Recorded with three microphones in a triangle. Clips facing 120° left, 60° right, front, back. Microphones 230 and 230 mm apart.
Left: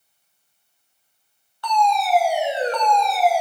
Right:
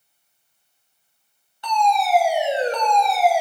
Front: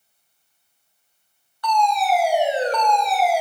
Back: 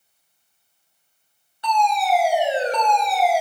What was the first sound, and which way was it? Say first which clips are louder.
A fire alarm: even, front 1 dB; 125° right.